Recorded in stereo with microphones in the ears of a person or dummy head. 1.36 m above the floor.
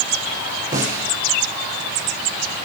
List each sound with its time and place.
0.7 s a snare drum: 15° right (ahead or behind), 7 m